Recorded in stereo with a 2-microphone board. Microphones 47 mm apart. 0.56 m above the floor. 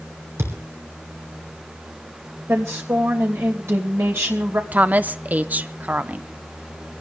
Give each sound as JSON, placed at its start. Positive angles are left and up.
{"t": 0.4, "sound": "a thud", "side_deg": -70, "distance_m": 3.5}
{"t": 2.5, "sound": "a woman speaking", "side_deg": -70, "distance_m": 2.5}
{"t": 4.7, "sound": "a woman speaking", "side_deg": -35, "distance_m": 0.7}